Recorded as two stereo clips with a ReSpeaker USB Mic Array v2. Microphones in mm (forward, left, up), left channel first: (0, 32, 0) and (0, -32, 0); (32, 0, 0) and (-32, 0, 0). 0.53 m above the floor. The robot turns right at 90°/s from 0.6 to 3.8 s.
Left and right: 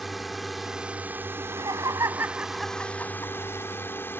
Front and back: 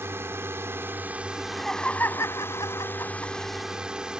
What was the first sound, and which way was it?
A drone, straight behind.